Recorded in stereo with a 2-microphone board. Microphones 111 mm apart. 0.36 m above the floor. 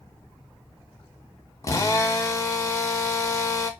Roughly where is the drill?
Left.